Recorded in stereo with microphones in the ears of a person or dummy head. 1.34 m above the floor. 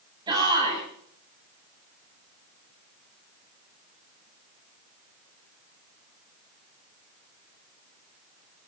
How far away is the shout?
About 7.5 m.